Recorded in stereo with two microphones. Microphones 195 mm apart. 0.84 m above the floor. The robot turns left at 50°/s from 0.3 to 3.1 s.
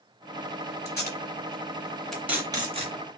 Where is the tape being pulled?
60° left (ahead or behind), 1.9 m; by 2.9 s 40° right (ahead or behind), 1.9 m.